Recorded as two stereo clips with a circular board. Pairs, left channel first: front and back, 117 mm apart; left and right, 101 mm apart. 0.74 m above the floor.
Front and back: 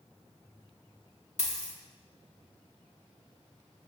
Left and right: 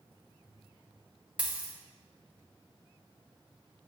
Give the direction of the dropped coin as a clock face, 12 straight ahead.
12 o'clock.